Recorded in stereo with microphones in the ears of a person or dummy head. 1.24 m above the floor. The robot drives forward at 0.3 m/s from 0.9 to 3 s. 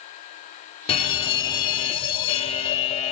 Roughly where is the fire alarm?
Left.